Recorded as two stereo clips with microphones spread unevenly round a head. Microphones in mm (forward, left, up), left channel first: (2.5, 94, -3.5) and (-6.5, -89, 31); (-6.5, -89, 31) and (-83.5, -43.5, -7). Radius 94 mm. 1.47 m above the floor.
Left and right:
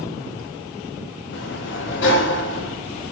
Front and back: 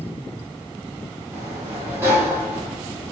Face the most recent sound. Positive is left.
turn(degrees=85)